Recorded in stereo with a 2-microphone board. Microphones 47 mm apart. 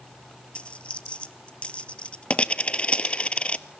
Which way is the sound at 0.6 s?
25° left (ahead or behind).